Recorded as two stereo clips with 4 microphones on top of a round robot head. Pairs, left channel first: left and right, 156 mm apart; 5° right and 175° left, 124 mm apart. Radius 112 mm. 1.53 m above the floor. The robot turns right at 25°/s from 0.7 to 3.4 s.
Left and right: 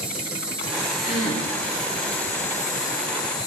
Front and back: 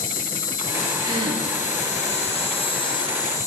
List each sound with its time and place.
0.0 s an insect: 10° right, 0.8 m; by 3.5 s 60° left, 0.8 m
1.0 s a gasp: 120° left, 6.5 m; by 1.4 s 130° left, 6.5 m